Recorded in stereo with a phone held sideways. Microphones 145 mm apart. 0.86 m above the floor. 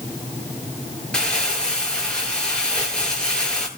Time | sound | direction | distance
1.1 | crumpling | 5° left (ahead or behind) | 9.5 m